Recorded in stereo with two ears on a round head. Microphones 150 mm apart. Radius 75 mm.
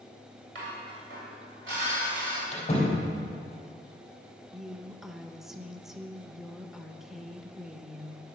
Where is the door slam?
40° left (ahead or behind), 3.5 m.